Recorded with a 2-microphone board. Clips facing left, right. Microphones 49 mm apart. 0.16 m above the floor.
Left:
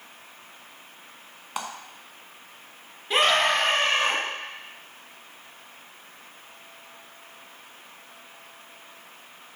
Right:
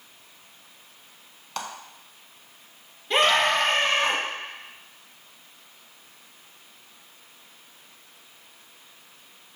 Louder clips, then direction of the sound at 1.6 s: Left 1 dB; 15° left (ahead or behind).